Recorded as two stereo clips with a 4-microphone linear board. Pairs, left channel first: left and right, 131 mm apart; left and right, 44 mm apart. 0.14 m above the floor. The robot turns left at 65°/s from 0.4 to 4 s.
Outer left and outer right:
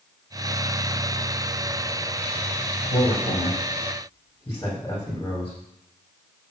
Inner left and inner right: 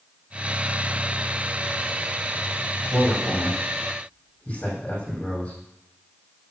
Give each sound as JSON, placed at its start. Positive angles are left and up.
{"t": 2.9, "sound": "a man speaking", "side_deg": 75, "distance_m": 5.5}